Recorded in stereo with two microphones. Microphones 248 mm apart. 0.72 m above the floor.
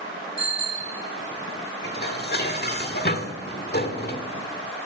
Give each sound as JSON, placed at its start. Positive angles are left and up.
{"t": 0.4, "sound": "a bicycle bell", "side_deg": 35, "distance_m": 3.5}
{"t": 1.8, "sound": "dishes clattering", "side_deg": 40, "distance_m": 1.4}